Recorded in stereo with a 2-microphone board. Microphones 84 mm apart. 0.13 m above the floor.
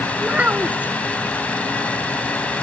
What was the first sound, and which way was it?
A child speaking, 15° right (ahead or behind).